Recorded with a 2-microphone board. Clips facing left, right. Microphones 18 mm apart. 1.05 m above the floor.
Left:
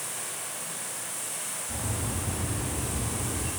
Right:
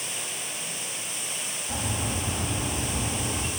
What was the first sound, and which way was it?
Running water, 55° right (ahead or behind).